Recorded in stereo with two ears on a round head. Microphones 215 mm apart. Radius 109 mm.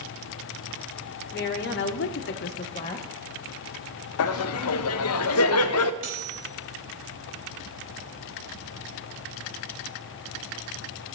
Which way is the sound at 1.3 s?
45° left (ahead or behind).